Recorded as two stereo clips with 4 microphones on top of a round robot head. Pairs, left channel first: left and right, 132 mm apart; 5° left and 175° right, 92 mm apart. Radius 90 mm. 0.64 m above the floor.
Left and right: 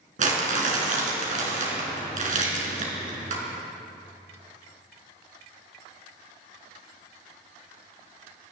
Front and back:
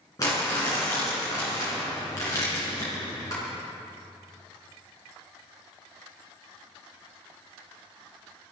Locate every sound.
0.2 s crumpling: 65° right, 4 m